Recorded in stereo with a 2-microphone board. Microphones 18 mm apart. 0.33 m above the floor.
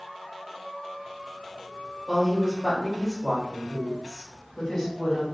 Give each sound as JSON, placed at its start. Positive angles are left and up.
{"t": 2.1, "sound": "a woman speaking", "side_deg": -20, "distance_m": 1.3}